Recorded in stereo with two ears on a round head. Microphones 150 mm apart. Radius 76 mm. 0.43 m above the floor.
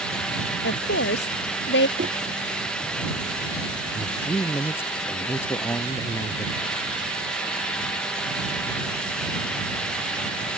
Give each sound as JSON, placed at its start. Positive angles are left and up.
{"t": 0.6, "sound": "a woman speaking", "side_deg": 70}
{"t": 2.0, "sound": "knocking", "side_deg": -50}
{"t": 4.0, "sound": "a man speaking", "side_deg": 15}